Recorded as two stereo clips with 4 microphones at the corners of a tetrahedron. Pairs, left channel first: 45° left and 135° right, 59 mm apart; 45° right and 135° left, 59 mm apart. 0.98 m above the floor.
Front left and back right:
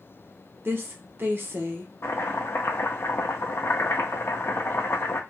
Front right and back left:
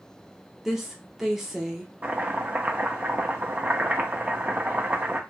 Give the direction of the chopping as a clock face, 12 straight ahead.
9 o'clock.